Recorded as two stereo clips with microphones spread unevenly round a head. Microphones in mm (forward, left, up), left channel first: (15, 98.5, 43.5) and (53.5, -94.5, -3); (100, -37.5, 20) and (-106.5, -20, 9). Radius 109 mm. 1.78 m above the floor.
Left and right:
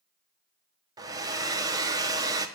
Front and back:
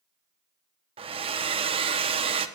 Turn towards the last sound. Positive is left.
turn(degrees=-160)